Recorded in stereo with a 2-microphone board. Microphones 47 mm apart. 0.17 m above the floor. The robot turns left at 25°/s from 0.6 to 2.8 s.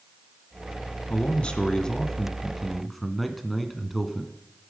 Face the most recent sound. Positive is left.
turn(degrees=0)